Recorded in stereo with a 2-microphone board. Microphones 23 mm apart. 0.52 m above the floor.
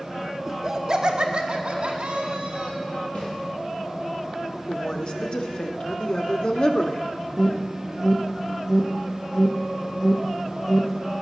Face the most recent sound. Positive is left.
turn(degrees=-20)  # may be behind; listen again after turning